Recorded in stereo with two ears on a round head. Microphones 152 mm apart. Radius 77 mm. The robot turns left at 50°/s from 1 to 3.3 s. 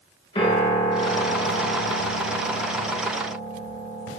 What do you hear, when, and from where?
0.3 s a piano: 145° left, 8.5 m; by 4.2 s 30° left, 8.5 m